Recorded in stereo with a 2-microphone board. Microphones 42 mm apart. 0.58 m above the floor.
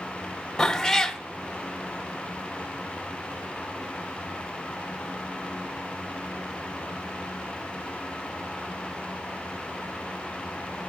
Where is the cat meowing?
10° left (ahead or behind), 0.9 m.